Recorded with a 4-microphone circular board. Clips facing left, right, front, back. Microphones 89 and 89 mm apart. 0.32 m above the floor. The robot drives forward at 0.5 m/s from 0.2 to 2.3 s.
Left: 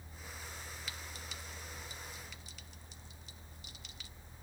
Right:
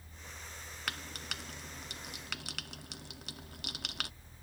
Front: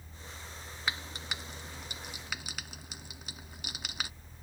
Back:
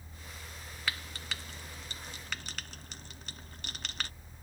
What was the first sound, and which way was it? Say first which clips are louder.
Frying: right 5 dB, front 1 dB; 70° right.